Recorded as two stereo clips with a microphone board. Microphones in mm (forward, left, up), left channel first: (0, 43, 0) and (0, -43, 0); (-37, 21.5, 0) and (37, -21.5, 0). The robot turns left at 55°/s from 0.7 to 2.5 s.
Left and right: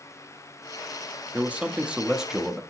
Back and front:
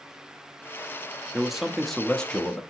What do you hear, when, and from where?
1.3 s a man speaking: 105° right, 0.5 m; by 2.6 s 165° right, 0.5 m